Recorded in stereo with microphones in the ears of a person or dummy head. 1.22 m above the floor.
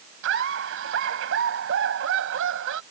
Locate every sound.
0.2 s laughter: 80° right